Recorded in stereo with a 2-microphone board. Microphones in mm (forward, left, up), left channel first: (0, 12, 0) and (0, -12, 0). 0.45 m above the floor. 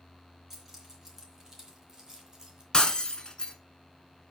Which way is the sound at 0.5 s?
10° right (ahead or behind).